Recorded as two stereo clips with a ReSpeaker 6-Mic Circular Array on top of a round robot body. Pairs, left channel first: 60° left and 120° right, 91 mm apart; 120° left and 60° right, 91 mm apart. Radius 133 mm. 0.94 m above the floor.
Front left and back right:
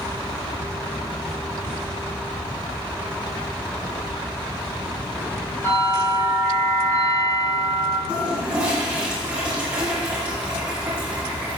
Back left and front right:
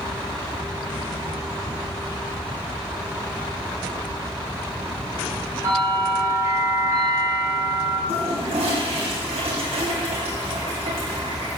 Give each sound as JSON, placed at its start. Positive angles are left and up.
{"t": 5.6, "sound": "a bell", "azimuth_deg": -5, "distance_m": 4.5}
{"t": 8.1, "sound": "a toilet flushing", "azimuth_deg": -45, "distance_m": 3.0}